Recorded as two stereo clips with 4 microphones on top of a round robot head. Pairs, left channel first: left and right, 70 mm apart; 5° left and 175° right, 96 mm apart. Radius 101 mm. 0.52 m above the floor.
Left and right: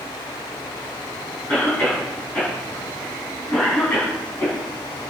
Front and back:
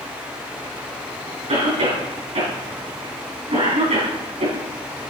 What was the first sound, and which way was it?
A cough, 160° left.